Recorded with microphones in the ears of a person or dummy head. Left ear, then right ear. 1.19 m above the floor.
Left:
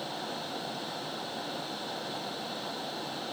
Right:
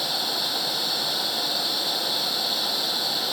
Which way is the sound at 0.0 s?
75° right (ahead or behind).